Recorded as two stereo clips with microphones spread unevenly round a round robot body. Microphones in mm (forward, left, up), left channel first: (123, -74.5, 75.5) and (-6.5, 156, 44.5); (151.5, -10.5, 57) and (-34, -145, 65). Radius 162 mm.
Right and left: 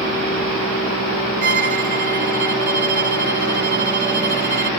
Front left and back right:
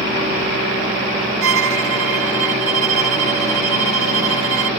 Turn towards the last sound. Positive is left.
turn(degrees=180)